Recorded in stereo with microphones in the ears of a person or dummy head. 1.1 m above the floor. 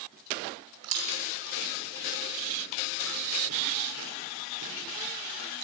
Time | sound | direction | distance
0.8 | chewing | 85° right | 4 m